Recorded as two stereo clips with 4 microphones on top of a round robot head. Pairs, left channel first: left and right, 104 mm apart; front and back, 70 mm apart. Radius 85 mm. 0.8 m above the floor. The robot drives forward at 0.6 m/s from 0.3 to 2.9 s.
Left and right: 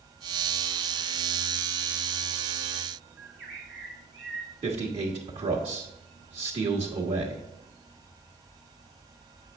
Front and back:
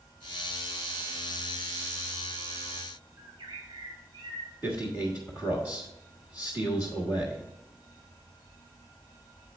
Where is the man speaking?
115° right, 1.4 m.